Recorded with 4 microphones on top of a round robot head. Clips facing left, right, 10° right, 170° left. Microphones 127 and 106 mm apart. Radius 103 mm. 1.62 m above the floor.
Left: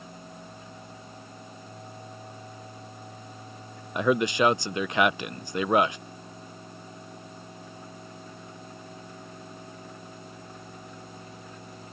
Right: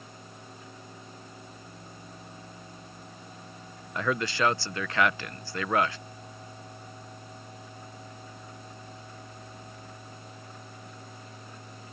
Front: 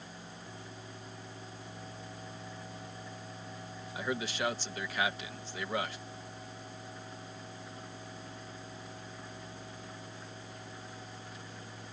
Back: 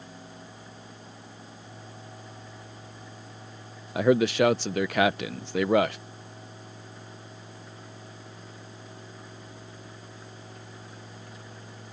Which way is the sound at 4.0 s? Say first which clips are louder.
Left 5 dB, back 15 dB; 160° left.